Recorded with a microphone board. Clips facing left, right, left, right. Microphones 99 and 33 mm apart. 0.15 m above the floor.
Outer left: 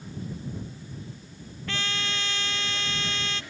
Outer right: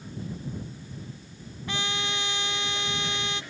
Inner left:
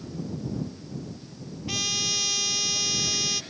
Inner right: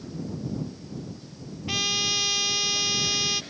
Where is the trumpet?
20° right (ahead or behind).